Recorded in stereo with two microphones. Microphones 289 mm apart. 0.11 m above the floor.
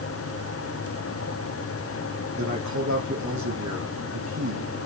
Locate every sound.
2.4 s a man speaking: 75° right (ahead or behind), 4.5 m